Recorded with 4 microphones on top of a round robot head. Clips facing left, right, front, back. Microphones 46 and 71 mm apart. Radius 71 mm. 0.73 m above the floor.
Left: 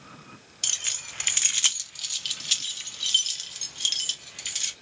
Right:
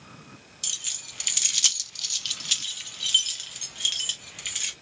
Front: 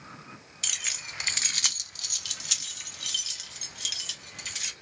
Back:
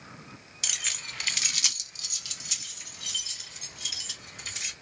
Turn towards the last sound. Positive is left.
turn(degrees=-20)